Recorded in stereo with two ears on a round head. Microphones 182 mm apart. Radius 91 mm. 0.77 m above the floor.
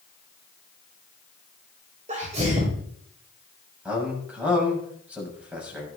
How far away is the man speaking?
About 6 m.